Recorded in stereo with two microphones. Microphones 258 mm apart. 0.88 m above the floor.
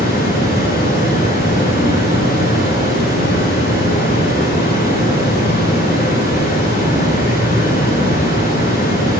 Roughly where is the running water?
Left.